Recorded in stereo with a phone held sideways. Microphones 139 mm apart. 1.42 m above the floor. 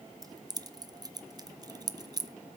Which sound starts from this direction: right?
Keys jangling, at 0.2 s.